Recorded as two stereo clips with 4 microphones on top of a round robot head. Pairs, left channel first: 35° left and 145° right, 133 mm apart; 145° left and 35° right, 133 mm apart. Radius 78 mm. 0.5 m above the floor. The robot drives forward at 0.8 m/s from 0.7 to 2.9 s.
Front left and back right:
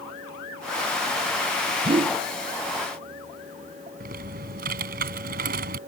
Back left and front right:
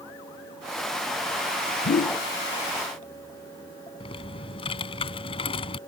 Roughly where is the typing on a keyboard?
Behind.